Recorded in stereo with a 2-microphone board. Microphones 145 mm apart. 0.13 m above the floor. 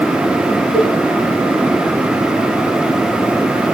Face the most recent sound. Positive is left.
turn(degrees=30)  # may be behind; listen again after turning